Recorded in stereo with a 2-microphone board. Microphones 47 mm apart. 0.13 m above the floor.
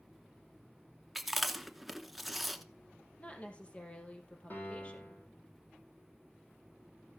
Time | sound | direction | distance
1.1 | chewing | centre (ahead or behind) | 0.8 m
3.2 | a woman speaking | 25° left (ahead or behind) | 3.5 m
4.5 | a piano | 40° left (ahead or behind) | 5 m